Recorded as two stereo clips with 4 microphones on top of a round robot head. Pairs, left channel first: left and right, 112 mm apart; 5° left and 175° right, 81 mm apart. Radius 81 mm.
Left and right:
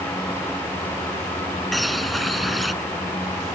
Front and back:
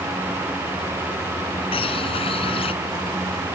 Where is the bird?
Straight ahead.